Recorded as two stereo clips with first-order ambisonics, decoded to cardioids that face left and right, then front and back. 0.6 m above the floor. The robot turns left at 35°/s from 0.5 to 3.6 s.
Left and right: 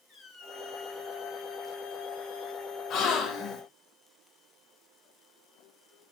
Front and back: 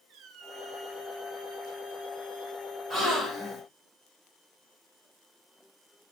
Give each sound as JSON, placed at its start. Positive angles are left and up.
{"t": 0.1, "sound": "a squeak", "azimuth_deg": 145, "distance_m": 0.9}
{"t": 2.9, "sound": "a gasp", "azimuth_deg": 100, "distance_m": 1.1}